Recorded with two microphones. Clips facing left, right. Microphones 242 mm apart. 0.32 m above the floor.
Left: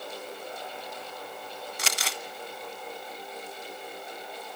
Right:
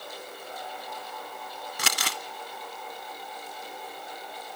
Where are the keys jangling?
I don't hear keys jangling.